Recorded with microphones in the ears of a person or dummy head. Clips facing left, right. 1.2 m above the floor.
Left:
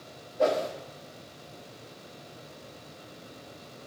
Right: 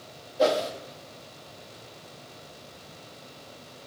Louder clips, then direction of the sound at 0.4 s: Right 2 dB; 45° right (ahead or behind).